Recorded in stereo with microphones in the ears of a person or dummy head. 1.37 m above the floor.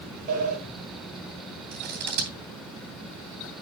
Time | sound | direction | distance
0.3 | a sliding door | 50° right (ahead or behind) | 6.5 m
1.7 | scissors | 55° right (ahead or behind) | 2.5 m